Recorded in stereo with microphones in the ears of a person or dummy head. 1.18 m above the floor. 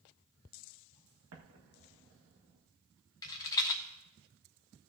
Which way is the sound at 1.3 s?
75° right (ahead or behind).